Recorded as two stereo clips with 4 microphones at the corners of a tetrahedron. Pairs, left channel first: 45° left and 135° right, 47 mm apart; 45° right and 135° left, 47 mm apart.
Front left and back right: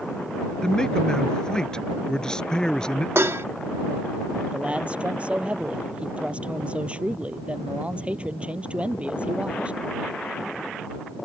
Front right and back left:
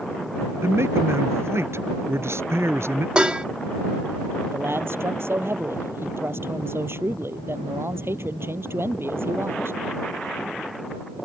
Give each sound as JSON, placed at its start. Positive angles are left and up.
{"t": 0.6, "sound": "a man speaking", "azimuth_deg": 120}
{"t": 3.1, "sound": "dishes clattering", "azimuth_deg": -160}
{"t": 4.5, "sound": "a man speaking", "azimuth_deg": 160}